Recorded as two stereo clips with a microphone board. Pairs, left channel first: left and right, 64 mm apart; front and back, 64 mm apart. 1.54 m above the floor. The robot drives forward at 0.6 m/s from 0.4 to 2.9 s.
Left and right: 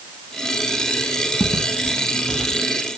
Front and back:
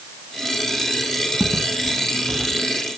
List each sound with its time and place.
1.4 s footsteps: 95° left, 3.5 m; by 2.6 s 90° left, 4.5 m